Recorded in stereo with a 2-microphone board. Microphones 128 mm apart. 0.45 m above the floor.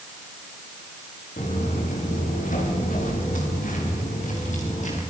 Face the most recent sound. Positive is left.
turn(degrees=70)  # may be behind; listen again after turning